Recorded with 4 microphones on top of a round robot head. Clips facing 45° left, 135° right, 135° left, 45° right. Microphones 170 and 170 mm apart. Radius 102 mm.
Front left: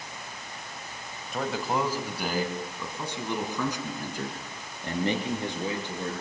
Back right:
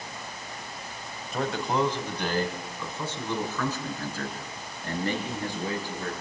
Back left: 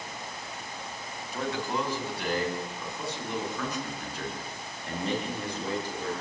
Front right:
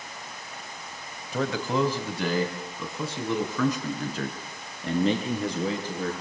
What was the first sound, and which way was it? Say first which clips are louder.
A man speaking: back right 1 dB, front right 5 dB; 45° right.